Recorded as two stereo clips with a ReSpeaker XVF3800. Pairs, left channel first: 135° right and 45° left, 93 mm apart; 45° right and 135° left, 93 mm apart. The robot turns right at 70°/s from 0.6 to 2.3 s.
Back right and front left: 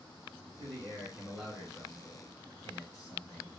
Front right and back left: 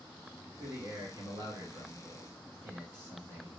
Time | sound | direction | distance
0.6 | a man speaking | 70° left | 2.5 m